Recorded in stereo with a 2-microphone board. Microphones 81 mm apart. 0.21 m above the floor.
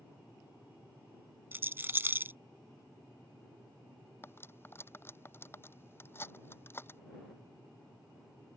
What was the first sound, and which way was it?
A rattle, 25° right (ahead or behind).